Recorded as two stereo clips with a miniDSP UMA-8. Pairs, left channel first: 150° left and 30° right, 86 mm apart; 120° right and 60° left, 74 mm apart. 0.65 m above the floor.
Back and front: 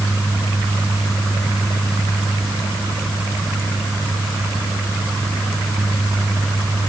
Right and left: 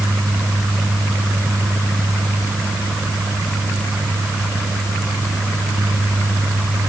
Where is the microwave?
I don't hear a microwave.